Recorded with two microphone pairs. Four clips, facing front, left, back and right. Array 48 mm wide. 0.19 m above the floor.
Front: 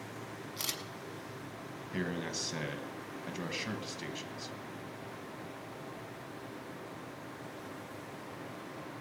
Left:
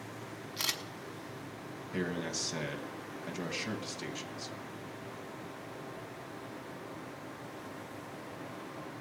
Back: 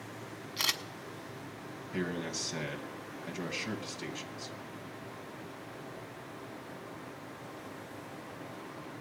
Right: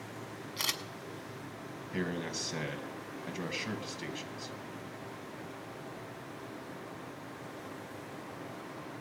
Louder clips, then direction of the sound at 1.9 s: Even, back 1 dB; 60° right.